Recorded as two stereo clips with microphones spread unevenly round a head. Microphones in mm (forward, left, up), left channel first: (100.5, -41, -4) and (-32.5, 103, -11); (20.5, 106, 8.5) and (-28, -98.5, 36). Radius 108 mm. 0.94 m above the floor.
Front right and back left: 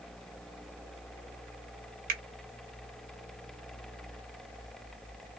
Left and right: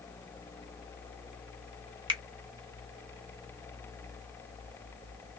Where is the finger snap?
175° right, 0.7 m.